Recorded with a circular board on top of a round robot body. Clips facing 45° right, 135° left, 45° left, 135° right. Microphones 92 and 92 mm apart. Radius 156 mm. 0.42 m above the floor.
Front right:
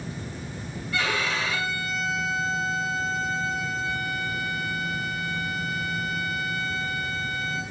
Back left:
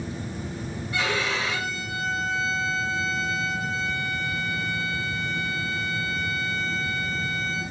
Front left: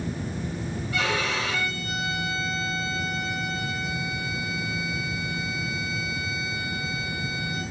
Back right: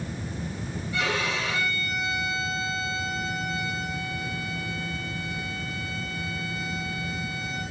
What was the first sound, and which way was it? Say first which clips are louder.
A violin: even, front left 1 dB; 65° left.